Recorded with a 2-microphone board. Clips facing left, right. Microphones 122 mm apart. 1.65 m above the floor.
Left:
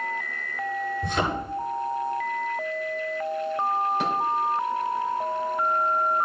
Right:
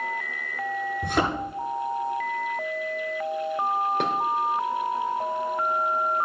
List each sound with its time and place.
1.0 s a thud: 55° right (ahead or behind), 9 m
4.0 s dishes clattering: 60° right (ahead or behind), 3.5 m